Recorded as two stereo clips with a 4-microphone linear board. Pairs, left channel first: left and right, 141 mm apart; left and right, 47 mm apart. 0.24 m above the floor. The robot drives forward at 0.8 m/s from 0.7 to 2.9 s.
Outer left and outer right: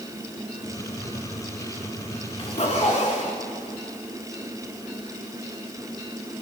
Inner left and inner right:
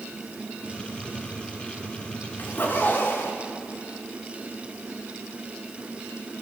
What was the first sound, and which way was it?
A zipper, 45° left (ahead or behind).